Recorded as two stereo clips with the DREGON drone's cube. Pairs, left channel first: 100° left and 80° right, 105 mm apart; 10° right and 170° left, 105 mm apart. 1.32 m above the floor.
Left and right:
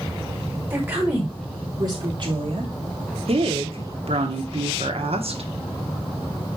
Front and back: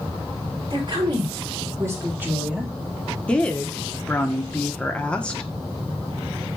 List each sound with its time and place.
0.7 s a woman speaking: 145° right, 4.5 m; by 2.7 s 105° right, 3 m
3.3 s a woman speaking: 90° right, 1.5 m